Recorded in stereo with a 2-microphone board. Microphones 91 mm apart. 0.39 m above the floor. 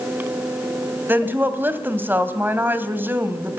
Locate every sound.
1.1 s a woman speaking: 20° right (ahead or behind), 2.5 m